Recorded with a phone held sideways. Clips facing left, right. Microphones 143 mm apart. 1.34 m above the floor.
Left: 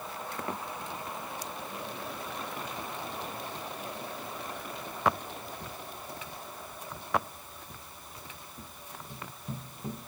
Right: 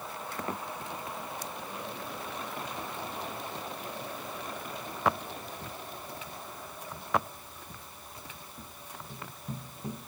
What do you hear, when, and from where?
Only background noise.